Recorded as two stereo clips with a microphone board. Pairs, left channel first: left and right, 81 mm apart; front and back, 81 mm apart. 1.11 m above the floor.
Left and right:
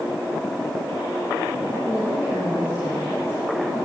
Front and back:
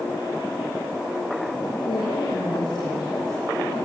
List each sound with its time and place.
1.8 s a woman speaking: 20° right, 5.5 m; by 3.8 s 35° right, 8 m